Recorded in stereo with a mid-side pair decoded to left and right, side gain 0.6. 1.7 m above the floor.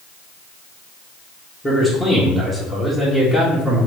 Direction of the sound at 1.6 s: 15° left.